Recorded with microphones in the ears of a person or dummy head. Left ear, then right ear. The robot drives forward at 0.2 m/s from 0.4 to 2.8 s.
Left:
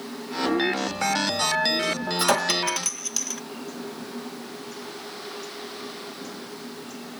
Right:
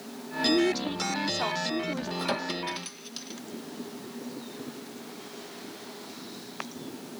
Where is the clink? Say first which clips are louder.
Left 11 dB; 35° left (ahead or behind); by 3.4 s 30° left (ahead or behind).